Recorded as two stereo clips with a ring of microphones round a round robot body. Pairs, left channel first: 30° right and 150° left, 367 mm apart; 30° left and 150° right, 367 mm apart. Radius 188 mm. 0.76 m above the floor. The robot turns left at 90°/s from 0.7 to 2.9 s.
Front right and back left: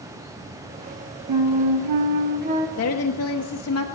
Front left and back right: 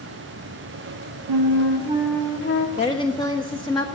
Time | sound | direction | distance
1.3 | a flute | 170° right | 1.6 m
2.8 | a woman speaking | 30° right | 1.1 m